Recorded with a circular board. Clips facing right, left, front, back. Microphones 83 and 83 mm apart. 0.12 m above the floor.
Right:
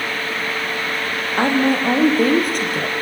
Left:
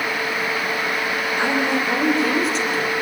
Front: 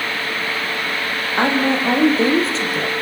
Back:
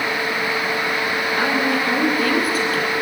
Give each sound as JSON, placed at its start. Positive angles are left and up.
{"t": 1.4, "sound": "a woman speaking", "azimuth_deg": -60, "distance_m": 4.5}